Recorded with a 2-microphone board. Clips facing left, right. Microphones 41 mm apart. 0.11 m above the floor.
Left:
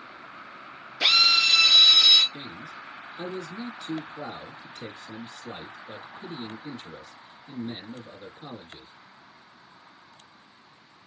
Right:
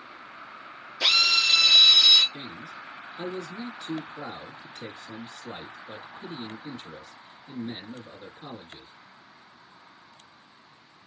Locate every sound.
1.0 s a drill: 15° left (ahead or behind), 1.6 m
2.3 s a man speaking: 25° right (ahead or behind), 1.2 m